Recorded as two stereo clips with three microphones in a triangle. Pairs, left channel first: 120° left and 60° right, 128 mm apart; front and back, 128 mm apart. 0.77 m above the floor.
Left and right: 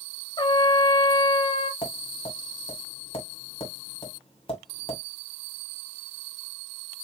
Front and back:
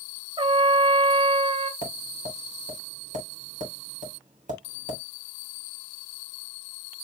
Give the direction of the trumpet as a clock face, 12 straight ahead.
7 o'clock.